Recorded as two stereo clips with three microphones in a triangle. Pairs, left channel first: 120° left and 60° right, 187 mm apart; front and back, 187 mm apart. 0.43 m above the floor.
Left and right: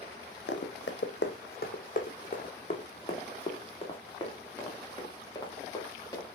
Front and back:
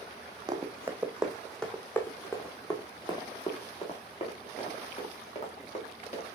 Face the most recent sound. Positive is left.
turn(degrees=50)